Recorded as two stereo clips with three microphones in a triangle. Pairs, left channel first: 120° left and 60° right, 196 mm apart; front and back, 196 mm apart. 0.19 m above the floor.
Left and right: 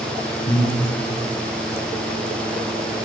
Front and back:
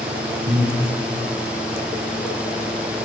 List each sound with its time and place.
0.5 s breathing: 160° left, 6.5 m